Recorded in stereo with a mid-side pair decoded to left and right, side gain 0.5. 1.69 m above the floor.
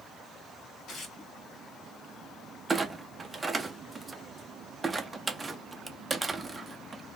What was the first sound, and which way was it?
Tearing paper, 55° left.